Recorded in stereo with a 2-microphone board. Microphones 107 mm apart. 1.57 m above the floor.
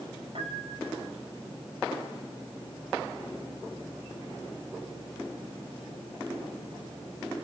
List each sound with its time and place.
0.3 s a piano: 60° right (ahead or behind), 6 m